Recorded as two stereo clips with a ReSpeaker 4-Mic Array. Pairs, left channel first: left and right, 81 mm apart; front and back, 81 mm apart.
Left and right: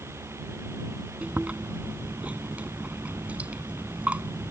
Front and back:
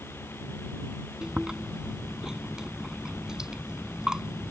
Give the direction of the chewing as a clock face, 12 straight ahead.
4 o'clock.